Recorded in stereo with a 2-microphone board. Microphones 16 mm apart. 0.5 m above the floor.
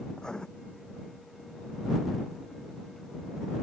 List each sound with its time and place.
0.1 s writing: 45° left (ahead or behind)